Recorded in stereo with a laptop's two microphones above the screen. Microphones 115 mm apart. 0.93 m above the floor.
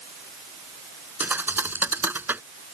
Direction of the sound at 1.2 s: 15° right (ahead or behind).